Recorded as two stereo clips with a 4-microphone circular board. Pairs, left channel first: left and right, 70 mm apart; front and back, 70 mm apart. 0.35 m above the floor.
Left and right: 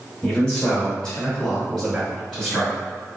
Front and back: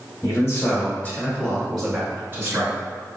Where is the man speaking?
15° left, 1.7 m; by 2.8 s 170° right, 1.4 m.